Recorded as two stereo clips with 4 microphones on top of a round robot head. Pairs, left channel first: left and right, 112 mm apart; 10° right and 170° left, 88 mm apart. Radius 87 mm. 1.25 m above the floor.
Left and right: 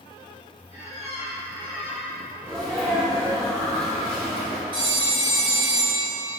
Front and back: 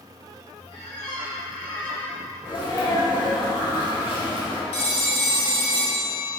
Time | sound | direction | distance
0.7 | a squeak | 50° right | 1.7 m
2.5 | a sneeze | 25° right | 0.8 m
4.7 | a phone ringing | 35° right | 0.5 m